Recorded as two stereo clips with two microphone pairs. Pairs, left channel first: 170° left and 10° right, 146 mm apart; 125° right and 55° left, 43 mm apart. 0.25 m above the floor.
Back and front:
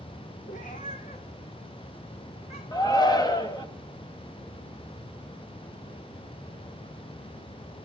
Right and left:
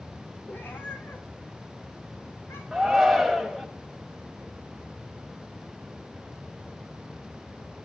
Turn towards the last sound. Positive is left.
turn(degrees=145)